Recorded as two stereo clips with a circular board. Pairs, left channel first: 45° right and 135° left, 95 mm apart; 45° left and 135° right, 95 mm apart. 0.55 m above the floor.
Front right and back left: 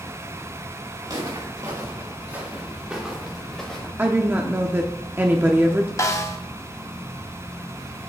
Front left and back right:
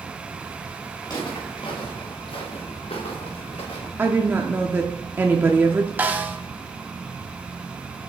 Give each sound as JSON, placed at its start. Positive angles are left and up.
{"t": 1.0, "sound": "footsteps", "azimuth_deg": 90, "distance_m": 3.5}
{"t": 4.0, "sound": "a woman speaking", "azimuth_deg": 180, "distance_m": 0.7}
{"t": 6.0, "sound": "a snare drum", "azimuth_deg": -75, "distance_m": 0.8}